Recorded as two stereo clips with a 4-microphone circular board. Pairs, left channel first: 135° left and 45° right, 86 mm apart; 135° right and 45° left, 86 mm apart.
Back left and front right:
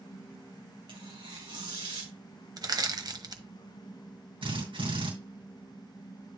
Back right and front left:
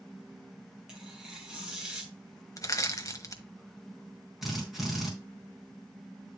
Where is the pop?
I don't hear a pop.